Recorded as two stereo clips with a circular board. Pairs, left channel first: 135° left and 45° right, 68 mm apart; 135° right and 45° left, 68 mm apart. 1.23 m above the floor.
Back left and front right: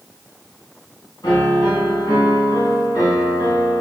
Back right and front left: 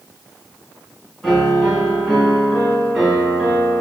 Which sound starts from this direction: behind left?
A piano, at 1.2 s.